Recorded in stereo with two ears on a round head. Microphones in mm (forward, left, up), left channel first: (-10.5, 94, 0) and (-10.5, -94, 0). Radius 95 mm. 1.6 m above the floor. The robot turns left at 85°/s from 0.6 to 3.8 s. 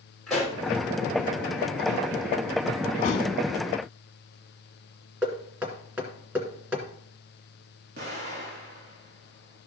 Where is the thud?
30° left (ahead or behind), 1.4 m; by 3.3 s 40° left (ahead or behind), 1.4 m.